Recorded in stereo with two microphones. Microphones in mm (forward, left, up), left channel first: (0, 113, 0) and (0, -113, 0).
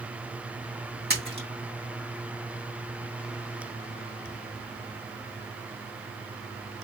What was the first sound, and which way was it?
A splash, 50° right (ahead or behind).